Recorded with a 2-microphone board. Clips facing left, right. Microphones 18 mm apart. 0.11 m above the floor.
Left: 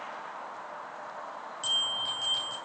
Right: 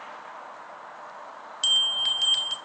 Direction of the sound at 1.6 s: 45° right (ahead or behind).